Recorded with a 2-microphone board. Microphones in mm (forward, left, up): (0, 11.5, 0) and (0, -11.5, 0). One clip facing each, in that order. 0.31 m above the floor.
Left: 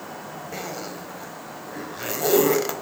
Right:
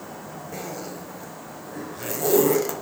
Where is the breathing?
I don't hear breathing.